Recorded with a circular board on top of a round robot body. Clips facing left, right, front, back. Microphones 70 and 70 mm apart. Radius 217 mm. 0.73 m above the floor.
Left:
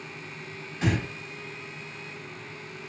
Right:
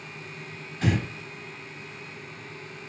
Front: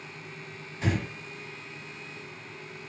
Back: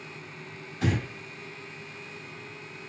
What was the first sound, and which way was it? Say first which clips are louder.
Breathing: right 1 dB, back 1 dB; 165° left.